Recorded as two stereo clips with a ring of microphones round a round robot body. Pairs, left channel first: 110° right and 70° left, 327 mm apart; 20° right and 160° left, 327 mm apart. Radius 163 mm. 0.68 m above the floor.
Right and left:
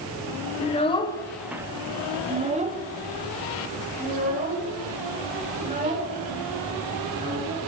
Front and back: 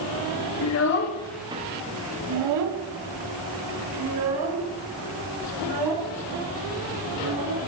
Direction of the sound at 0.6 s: 45° right.